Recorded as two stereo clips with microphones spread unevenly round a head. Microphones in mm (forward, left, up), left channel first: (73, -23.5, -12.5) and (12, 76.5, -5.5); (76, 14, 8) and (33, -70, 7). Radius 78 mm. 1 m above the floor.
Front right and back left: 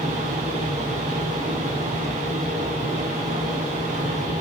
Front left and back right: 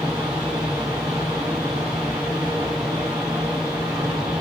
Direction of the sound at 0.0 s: 170° left.